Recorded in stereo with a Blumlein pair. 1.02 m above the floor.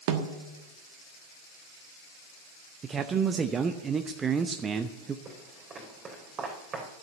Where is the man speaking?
20° right, 0.7 m.